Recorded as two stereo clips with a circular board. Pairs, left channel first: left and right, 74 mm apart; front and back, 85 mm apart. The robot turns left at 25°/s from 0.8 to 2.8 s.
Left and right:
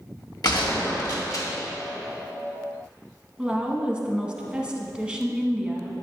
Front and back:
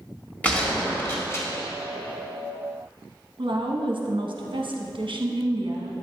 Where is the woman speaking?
165° right, 0.9 m.